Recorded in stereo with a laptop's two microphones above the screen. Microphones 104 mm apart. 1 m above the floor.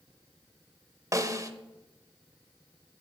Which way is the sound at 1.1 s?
35° right (ahead or behind).